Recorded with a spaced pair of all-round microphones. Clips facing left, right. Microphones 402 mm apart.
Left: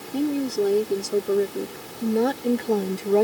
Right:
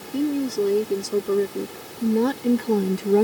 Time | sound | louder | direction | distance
0.1 | a woman speaking | right 1 dB | 5° right (ahead or behind) | ?